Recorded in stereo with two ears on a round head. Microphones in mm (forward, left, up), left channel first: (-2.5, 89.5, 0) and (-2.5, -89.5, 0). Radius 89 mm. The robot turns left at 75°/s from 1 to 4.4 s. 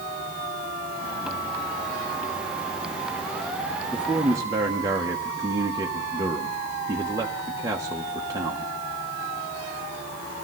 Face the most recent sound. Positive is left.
turn(degrees=-25)